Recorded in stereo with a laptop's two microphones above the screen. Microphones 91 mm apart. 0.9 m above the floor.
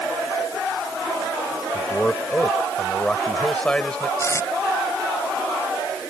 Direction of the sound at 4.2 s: 35° left (ahead or behind).